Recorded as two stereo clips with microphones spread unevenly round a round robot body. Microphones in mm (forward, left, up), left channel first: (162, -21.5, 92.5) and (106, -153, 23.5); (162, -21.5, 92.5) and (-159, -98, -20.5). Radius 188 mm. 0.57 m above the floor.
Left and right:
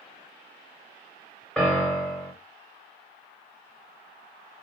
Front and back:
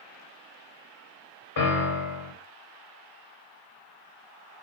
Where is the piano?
20° right, 1.6 m.